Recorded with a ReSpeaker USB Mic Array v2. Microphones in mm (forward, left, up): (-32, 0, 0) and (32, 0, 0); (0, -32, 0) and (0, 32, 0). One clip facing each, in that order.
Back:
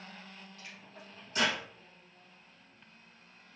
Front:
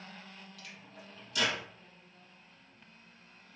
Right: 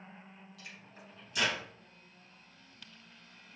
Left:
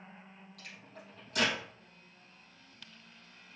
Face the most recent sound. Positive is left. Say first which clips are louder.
# even, left 2 dB
turn(degrees=125)